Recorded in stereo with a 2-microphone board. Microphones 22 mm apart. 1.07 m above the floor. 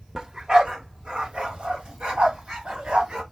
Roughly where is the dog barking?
Right.